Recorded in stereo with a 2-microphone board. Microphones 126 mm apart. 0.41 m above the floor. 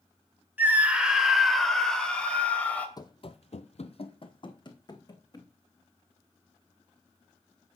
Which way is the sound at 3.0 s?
30° left (ahead or behind).